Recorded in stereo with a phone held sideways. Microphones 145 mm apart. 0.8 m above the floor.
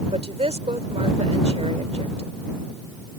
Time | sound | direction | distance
0.1 | a woman speaking | 50° right (ahead or behind) | ?